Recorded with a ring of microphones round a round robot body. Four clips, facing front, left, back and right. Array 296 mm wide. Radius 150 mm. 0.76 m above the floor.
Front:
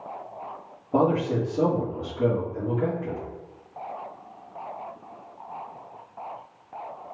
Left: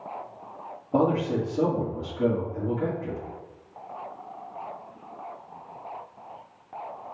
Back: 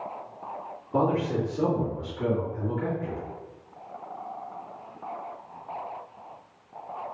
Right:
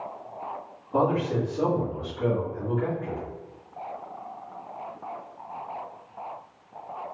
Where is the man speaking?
35° left, 2.0 m.